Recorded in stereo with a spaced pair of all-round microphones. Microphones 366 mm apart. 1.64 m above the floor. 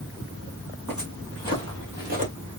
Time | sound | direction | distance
0.9 | footsteps | 55° right (ahead or behind) | 2.5 m